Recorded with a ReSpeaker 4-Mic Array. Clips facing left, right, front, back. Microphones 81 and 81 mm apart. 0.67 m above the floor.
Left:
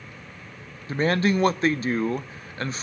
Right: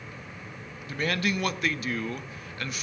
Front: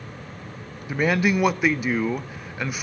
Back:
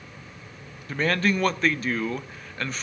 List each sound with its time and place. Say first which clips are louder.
0.9 s a man speaking: left 7 dB, front 3 dB; 70° left, 0.6 m